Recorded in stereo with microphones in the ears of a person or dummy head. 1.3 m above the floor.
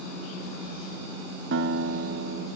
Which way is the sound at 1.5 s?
55° right (ahead or behind).